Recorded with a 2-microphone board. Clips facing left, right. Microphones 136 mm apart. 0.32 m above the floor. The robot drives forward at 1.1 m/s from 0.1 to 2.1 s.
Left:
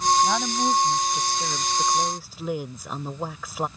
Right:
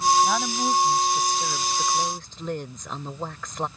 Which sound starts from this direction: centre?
A woman speaking, at 0.2 s.